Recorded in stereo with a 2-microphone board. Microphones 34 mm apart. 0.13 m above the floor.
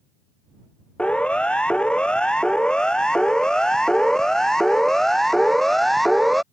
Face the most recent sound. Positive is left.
turn(degrees=5)  # may be behind; listen again after turning